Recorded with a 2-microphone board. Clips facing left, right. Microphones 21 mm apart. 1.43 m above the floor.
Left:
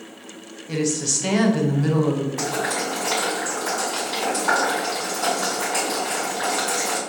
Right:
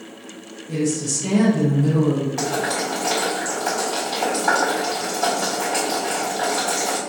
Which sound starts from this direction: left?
A woman speaking, at 0.7 s.